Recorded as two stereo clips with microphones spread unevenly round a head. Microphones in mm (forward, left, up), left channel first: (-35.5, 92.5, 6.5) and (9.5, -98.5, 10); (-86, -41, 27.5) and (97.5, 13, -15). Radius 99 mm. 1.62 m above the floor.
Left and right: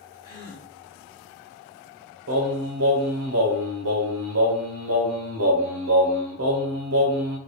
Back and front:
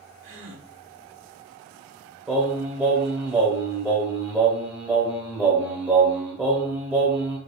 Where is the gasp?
55° left, 1.0 m.